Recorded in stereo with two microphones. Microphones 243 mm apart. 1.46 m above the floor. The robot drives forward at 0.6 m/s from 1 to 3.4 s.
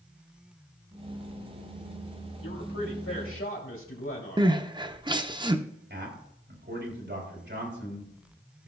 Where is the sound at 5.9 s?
50° right (ahead or behind), 3.5 m.